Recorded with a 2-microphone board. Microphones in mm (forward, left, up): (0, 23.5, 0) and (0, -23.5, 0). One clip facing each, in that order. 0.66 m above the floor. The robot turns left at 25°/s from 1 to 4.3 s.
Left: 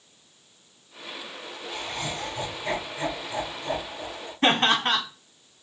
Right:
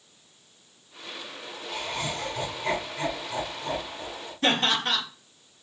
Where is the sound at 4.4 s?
30° left (ahead or behind), 1.2 m.